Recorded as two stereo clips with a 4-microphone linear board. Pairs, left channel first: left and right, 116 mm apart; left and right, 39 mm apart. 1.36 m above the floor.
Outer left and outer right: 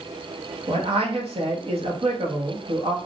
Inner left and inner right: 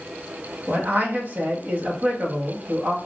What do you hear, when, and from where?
0.7 s a man speaking: 55° right (ahead or behind), 1.3 m